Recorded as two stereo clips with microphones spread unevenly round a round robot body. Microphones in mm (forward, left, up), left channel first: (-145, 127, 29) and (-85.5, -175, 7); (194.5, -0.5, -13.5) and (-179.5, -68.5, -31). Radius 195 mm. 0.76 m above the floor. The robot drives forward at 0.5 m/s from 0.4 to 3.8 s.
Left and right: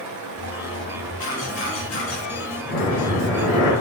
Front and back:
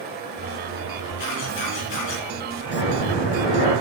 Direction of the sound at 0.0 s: 105° right.